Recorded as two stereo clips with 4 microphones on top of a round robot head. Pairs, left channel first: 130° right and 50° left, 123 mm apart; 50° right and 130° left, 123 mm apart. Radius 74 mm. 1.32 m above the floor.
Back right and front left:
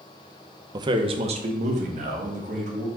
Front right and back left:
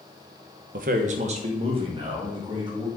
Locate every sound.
0.7 s a man speaking: 110° left, 0.7 m; by 2.9 s 70° left, 2 m